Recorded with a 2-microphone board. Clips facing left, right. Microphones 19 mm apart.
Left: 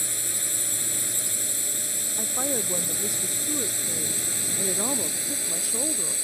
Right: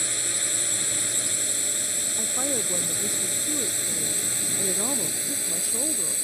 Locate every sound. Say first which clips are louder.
0.0 s a drone: right 2 dB; 20° right (ahead or behind); by 6.2 s centre (ahead or behind)
2.2 s a woman speaking: left 1 dB; 10° left (ahead or behind)